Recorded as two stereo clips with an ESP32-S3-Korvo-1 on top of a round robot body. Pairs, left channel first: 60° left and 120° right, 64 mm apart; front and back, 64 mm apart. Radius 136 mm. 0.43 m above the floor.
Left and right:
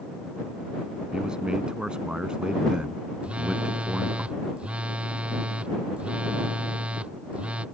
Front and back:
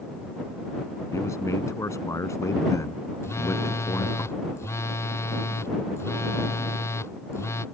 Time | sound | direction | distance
1.1 | a man speaking | 40° right | ?
3.2 | a phone buzzing | 45° right | ?